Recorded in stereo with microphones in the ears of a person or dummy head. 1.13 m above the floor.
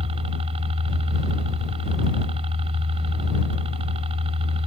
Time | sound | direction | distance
0.0 | a helicopter | 30° right (ahead or behind) | ?